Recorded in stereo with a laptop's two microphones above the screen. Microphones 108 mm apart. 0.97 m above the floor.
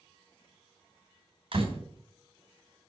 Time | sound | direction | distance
1.5 | a door slam | 50° right (ahead or behind) | 3 m